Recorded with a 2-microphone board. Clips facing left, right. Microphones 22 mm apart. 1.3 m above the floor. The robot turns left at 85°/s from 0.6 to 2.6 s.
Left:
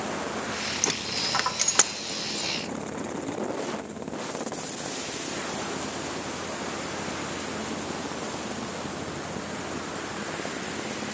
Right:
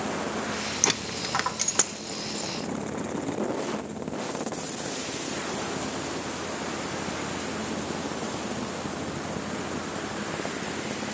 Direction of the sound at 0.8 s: 30° right (ahead or behind).